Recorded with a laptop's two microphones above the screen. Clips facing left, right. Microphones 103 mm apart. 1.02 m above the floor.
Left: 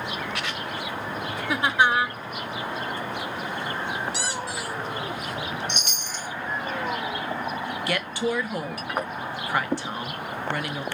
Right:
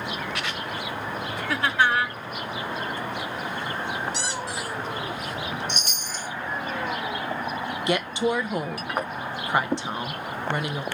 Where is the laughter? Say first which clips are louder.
Left 1 dB; 15° left (ahead or behind), 0.6 m.